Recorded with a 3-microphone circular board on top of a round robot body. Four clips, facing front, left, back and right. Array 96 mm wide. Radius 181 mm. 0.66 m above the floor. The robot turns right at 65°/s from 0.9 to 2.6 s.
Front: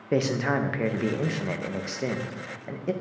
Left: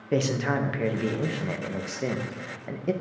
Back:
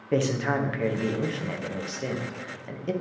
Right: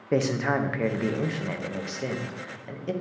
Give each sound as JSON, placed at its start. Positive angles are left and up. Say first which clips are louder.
{"t": 0.1, "sound": "a man speaking", "louder": "right 1 dB, even", "azimuth_deg": -50, "distance_m": 1.0}